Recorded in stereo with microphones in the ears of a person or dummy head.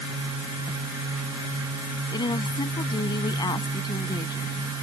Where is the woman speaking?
20° left (ahead or behind).